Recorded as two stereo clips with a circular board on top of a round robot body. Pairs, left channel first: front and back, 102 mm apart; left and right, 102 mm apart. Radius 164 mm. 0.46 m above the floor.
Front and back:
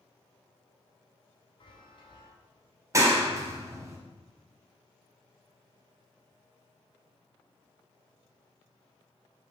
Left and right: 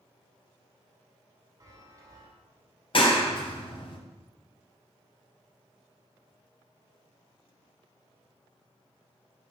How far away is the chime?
About 2.5 m.